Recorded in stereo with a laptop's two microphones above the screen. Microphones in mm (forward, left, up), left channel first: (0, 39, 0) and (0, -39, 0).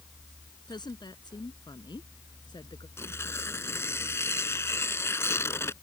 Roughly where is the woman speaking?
Left.